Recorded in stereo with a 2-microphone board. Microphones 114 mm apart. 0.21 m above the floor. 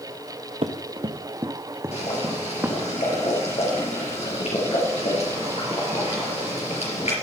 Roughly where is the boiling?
Left.